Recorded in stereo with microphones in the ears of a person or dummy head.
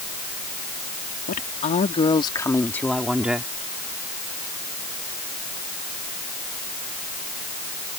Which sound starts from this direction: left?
A woman speaking, at 1.3 s.